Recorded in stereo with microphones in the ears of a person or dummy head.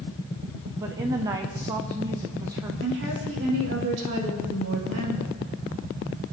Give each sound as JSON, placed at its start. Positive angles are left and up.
{"t": 0.8, "sound": "a woman speaking", "side_deg": -15, "distance_m": 0.7}
{"t": 2.8, "sound": "a woman speaking", "side_deg": -65, "distance_m": 3.0}